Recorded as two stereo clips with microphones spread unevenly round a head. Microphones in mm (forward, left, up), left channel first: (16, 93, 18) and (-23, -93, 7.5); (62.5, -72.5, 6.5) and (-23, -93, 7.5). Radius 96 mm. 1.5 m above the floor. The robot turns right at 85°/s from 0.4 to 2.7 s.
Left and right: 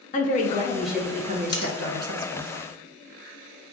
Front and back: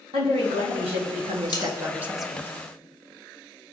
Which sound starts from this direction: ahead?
Cutlery clinking, at 1.5 s.